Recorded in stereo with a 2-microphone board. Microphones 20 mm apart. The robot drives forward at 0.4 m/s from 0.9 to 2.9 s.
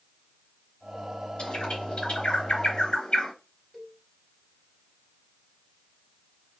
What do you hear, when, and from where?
1.4 s a bird: 70° left (ahead or behind), 3.5 m; by 3.3 s 65° left (ahead or behind), 3.5 m
3.7 s a cowbell: 20° left (ahead or behind), 1.1 m